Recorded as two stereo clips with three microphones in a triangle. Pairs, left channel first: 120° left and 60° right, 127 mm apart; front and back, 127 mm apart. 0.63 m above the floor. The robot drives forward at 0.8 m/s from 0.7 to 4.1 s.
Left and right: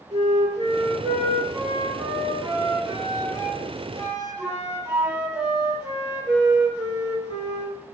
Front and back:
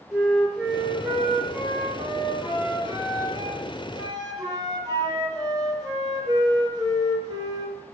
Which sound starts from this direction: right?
A flute, at 0.1 s.